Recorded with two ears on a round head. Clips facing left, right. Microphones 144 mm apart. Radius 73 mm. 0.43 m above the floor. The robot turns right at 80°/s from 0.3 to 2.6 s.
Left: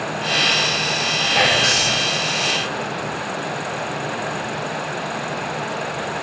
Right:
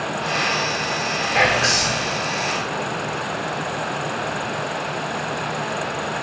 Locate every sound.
1.3 s whispering: 10° right (ahead or behind), 0.9 m; by 2.1 s 15° left (ahead or behind), 0.9 m